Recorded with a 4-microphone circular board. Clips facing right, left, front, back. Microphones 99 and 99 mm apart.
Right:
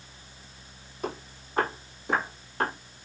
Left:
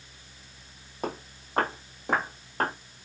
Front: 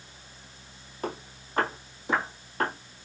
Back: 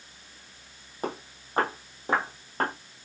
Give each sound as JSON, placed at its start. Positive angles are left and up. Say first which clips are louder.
{"t": 1.0, "sound": "footsteps", "louder": "left 1 dB, back 1 dB", "azimuth_deg": 120, "distance_m": 2.0}